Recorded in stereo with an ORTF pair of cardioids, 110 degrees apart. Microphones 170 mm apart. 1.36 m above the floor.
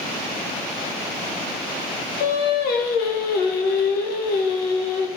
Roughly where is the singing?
Ahead left.